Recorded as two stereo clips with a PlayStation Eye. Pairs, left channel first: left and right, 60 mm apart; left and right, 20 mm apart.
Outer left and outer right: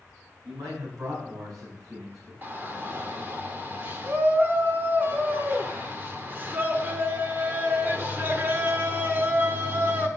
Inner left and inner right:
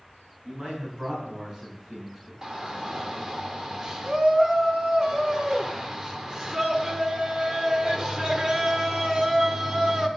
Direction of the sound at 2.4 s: 35° right (ahead or behind).